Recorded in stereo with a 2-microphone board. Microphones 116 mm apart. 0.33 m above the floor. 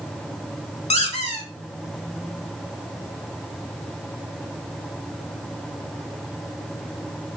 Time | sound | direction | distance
0.9 | a squeak | 65° left (ahead or behind) | 0.8 m